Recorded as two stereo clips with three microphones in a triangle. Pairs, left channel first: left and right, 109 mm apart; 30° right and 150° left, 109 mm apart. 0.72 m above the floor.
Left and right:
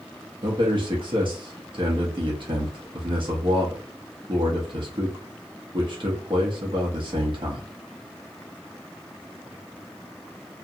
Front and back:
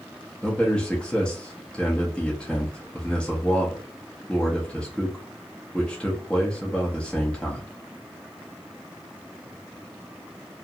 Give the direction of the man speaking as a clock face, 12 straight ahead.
4 o'clock.